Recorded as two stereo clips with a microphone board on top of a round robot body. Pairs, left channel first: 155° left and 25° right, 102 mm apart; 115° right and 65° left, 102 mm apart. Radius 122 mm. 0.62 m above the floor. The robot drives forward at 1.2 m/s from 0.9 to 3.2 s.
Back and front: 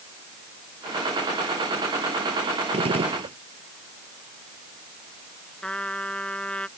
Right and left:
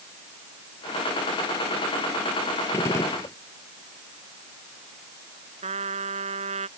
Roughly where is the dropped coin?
I don't hear a dropped coin.